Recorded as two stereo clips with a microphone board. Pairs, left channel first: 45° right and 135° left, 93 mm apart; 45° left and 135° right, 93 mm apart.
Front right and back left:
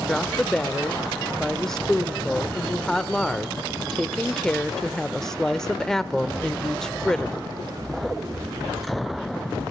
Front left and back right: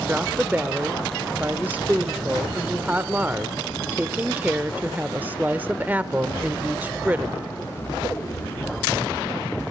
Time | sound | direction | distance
0.1 | a woman speaking | 120° right | 0.8 m